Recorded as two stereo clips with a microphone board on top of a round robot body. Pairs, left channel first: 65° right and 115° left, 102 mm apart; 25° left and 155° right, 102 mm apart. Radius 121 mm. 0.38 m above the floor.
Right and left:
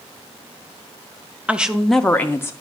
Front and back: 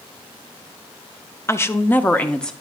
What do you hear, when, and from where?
1.5 s a woman speaking: 50° left, 0.8 m; by 2.5 s 55° right, 0.8 m